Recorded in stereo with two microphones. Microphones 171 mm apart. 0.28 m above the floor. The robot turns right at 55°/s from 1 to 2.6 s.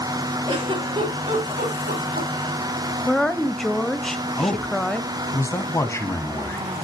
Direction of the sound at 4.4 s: 15° left (ahead or behind).